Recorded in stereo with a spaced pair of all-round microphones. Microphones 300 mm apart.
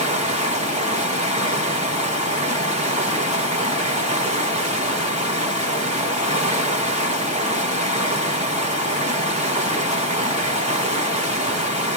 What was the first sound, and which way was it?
Running water, 20° right (ahead or behind).